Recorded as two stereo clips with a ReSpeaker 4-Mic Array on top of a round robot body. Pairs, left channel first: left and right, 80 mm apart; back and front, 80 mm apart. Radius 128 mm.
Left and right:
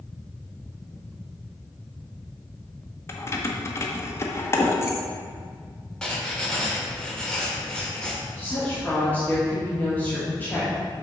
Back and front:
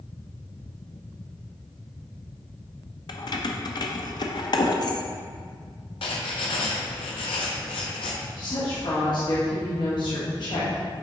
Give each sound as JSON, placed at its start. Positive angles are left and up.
{"t": 3.1, "sound": "keys jangling", "azimuth_deg": 150, "distance_m": 0.9}
{"t": 6.0, "sound": "writing", "azimuth_deg": 170, "distance_m": 1.1}
{"t": 8.4, "sound": "a woman speaking", "azimuth_deg": 160, "distance_m": 2.5}